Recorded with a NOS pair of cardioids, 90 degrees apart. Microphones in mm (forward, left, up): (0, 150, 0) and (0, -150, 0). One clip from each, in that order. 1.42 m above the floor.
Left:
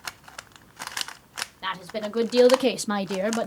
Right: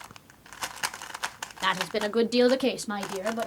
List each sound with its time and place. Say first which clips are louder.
1.6 s a woman speaking: right 6 dB; 35° right, 0.8 m; by 3.5 s 55° left, 0.6 m